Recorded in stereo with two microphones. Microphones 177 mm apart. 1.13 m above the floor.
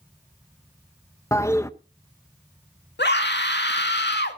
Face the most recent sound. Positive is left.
turn(degrees=75)  # may be behind; listen again after turning